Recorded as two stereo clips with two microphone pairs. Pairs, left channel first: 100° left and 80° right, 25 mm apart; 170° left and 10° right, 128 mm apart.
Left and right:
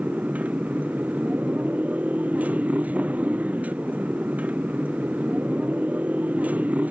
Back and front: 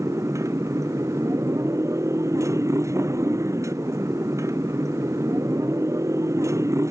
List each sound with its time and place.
0.0 s a motorcycle: 80° right